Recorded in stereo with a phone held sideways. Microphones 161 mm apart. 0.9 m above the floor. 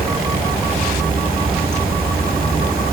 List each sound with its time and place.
0.0 s running water: 70° right (ahead or behind), 4.5 m